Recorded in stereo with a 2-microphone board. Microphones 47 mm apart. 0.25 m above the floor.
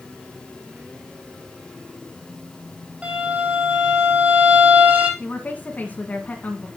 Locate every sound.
3.0 s a violin: 30° right (ahead or behind), 6 m
5.2 s a woman speaking: 30° left (ahead or behind), 1.9 m